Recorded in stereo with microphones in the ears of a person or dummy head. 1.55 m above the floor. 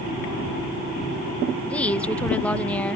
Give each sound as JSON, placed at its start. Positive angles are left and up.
{"t": 1.6, "sound": "a woman speaking", "side_deg": 10}